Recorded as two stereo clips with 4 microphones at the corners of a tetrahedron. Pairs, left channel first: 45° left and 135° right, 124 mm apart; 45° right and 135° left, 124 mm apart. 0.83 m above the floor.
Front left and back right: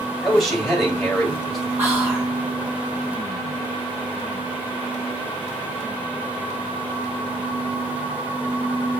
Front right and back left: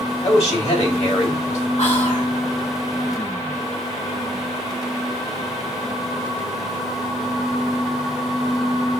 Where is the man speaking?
45° right, 2 m.